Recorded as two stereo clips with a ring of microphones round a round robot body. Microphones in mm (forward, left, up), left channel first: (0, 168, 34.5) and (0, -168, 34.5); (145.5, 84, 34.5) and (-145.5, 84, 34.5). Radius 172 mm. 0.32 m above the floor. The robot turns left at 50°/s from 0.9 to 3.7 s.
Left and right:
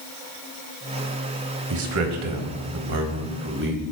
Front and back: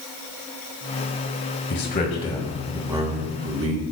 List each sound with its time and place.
1.7 s a man speaking: 45° right, 2.0 m; by 3.8 s 145° right, 2.0 m